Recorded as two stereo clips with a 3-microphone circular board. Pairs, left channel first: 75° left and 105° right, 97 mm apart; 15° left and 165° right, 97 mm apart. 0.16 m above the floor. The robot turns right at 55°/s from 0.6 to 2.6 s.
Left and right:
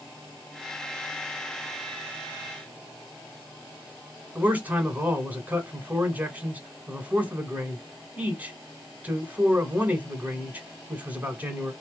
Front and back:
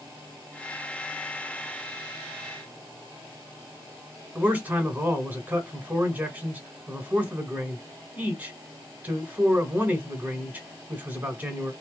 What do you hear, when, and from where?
4.3 s a man speaking: 135° right, 1.4 m